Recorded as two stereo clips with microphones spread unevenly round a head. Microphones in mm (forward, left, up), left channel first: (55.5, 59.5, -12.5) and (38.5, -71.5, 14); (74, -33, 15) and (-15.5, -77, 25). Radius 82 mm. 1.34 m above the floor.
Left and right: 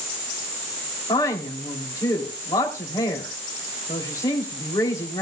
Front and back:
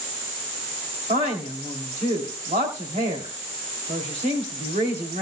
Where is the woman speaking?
155° left, 3 m.